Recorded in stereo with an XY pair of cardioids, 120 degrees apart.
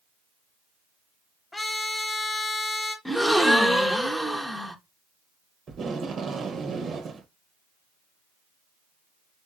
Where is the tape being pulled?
45° right, 0.7 m.